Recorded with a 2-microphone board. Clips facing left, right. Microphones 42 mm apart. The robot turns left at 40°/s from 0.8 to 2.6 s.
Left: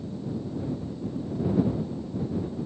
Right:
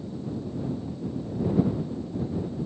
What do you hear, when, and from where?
Only background noise.